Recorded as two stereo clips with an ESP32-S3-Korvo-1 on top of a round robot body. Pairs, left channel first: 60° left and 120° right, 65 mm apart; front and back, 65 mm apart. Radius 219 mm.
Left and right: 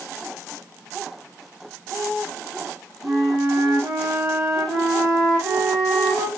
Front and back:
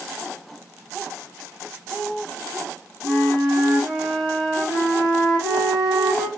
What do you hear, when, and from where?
3.0 s a flute: 90° right, 1.5 m